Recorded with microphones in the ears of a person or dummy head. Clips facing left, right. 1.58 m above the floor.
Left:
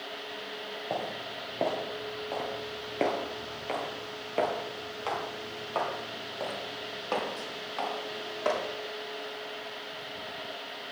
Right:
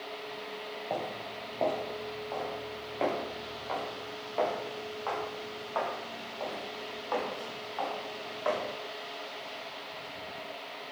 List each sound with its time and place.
0.9 s footsteps: 10° left (ahead or behind), 1.9 m; by 8.6 s 45° left (ahead or behind), 4 m